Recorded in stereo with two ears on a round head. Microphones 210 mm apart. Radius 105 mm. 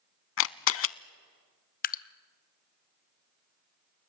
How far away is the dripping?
About 0.7 m.